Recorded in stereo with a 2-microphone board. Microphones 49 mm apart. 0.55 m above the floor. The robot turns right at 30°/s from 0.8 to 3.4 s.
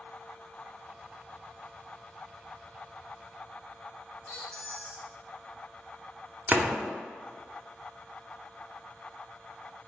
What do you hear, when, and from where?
4.3 s a squeak: 20° left (ahead or behind), 1.4 m
6.5 s a door slam: 30° right (ahead or behind), 0.7 m